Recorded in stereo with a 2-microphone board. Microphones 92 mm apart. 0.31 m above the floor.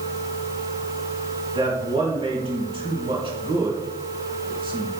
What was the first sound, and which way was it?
A man speaking, 70° right (ahead or behind).